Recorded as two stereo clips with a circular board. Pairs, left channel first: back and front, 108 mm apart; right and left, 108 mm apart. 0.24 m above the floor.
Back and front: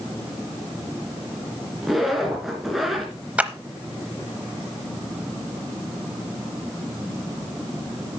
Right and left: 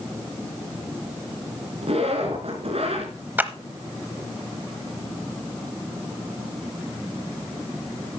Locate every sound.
1.8 s a zipper: 90° left, 2.5 m
3.4 s a clap: 55° left, 0.8 m